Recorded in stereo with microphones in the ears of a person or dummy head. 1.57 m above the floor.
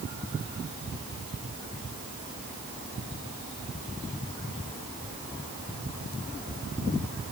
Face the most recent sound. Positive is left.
No sound to turn to.